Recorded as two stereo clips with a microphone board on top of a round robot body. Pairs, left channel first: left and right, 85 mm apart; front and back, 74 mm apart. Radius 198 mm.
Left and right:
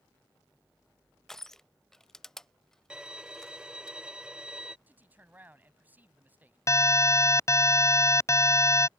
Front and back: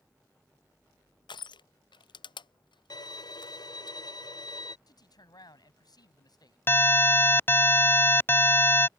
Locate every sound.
1.3 s crushing: 5° left
2.9 s a violin: 10° right
4.9 s a man speaking: 20° right
6.7 s an alarm: 50° left